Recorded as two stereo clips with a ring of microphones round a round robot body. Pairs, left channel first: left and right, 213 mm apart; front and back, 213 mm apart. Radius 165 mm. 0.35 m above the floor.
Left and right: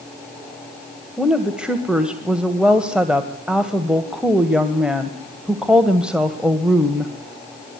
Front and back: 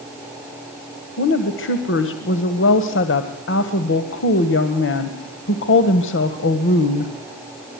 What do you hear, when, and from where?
1.2 s a woman speaking: 5° right, 1.9 m